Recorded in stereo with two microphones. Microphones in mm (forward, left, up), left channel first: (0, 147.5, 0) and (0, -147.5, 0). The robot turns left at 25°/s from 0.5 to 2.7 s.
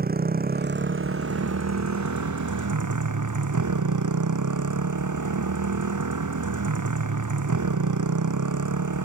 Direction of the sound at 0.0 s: 30° right.